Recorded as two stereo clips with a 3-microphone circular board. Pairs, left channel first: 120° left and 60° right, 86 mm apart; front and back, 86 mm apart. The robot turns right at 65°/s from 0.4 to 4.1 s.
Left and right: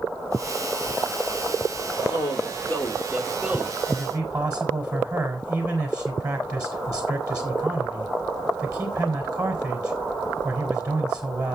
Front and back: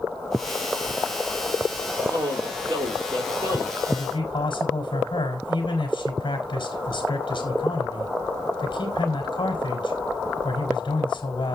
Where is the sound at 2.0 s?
135° left, 3 m; by 3.8 s 110° right, 3 m.